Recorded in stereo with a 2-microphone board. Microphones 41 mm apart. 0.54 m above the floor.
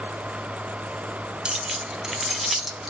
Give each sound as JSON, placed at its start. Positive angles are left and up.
{"t": 1.4, "sound": "keys jangling", "side_deg": -25, "distance_m": 0.5}